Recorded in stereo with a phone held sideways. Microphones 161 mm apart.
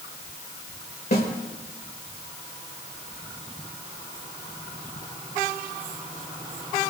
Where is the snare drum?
80° left, 3 m.